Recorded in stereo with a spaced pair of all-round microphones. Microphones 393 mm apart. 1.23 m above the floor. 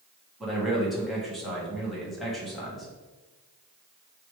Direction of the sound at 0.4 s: Centre (ahead or behind).